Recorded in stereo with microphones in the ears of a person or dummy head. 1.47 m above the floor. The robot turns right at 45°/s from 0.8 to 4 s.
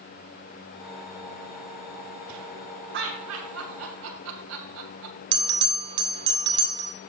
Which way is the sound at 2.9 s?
60° right (ahead or behind).